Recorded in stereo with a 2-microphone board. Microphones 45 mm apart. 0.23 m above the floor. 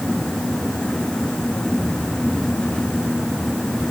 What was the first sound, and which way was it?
Only background noise.